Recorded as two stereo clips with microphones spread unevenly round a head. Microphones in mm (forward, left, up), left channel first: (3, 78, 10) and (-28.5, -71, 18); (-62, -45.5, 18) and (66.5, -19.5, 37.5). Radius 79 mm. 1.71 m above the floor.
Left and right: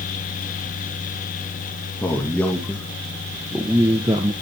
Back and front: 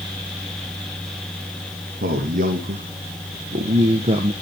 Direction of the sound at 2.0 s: Straight ahead.